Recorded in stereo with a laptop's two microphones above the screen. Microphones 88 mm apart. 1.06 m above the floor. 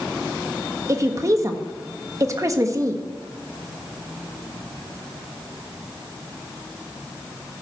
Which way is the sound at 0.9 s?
35° right (ahead or behind).